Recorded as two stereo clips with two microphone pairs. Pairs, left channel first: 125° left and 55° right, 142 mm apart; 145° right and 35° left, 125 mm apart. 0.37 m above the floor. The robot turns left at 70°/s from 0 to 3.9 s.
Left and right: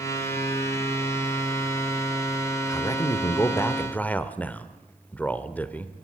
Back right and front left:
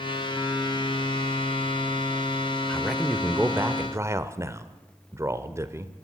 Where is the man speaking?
140° left, 1.2 m; by 5.9 s 55° left, 1.2 m.